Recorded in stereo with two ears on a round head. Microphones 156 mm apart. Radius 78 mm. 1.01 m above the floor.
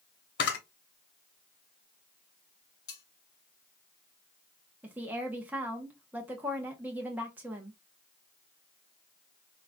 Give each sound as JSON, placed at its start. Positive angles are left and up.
{"t": 0.4, "sound": "a camera shutter", "side_deg": 70, "distance_m": 0.9}
{"t": 2.9, "sound": "cutlery clinking", "side_deg": 60, "distance_m": 2.0}
{"t": 4.8, "sound": "a woman speaking", "side_deg": -10, "distance_m": 0.8}